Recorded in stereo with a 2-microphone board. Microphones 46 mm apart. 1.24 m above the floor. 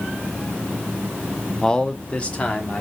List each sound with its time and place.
1.6 s a man speaking: 10° left (ahead or behind), 0.5 m; by 2.8 s 35° left (ahead or behind), 1.3 m